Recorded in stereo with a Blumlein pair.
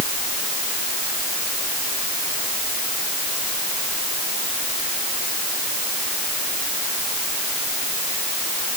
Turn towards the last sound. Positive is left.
No sound to turn to.